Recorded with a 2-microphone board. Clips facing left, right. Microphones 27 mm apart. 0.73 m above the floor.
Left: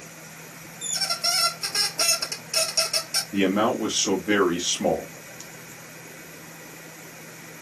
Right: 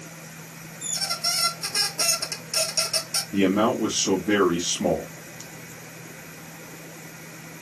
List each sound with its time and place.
0.8 s a squeak: 30° left (ahead or behind), 1.1 m
3.3 s a man speaking: 35° left (ahead or behind), 1.3 m